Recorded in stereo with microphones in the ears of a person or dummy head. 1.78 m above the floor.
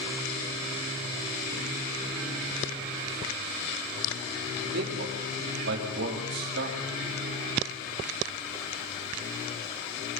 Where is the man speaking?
55° right (ahead or behind), 5 m.